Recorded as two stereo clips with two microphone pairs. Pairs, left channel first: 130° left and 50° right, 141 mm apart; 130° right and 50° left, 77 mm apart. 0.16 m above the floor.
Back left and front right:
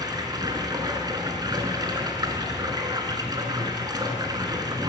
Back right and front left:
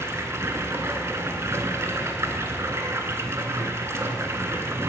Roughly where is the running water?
Ahead.